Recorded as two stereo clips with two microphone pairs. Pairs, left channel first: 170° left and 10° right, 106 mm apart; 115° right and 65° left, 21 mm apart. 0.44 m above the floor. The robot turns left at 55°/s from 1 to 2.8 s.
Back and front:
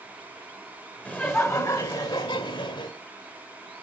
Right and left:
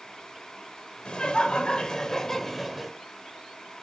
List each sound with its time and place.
1.1 s laughter: 115° right, 1.3 m; by 2.9 s 150° left, 1.3 m